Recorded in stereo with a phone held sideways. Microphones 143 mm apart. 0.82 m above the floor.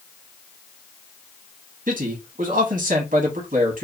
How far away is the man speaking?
About 0.8 m.